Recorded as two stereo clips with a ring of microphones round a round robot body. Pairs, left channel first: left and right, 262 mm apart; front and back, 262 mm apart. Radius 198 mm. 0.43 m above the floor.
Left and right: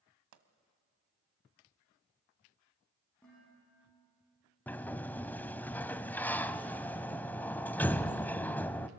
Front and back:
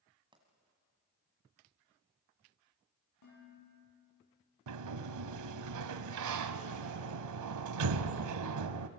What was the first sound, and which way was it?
A pop, 105° right.